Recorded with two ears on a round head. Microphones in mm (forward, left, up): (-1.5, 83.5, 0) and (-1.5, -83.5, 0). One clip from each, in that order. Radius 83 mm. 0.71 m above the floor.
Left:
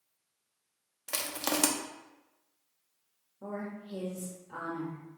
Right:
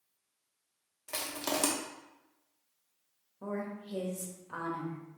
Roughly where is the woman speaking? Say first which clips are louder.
Right 1 dB; right.